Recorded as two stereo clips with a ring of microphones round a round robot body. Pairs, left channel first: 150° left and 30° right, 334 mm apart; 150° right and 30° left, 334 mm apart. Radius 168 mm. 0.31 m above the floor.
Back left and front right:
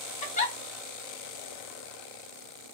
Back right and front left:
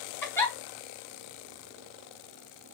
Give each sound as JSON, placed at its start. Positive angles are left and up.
{"t": 0.2, "sound": "a giggle", "azimuth_deg": 140, "distance_m": 1.2}